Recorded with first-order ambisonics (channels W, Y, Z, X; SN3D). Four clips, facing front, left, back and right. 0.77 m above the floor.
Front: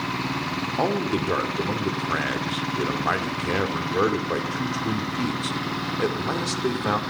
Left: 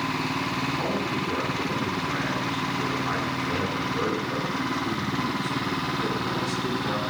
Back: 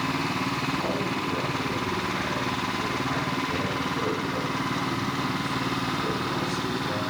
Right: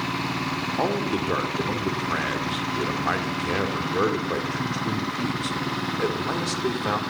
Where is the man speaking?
35° right, 2 m.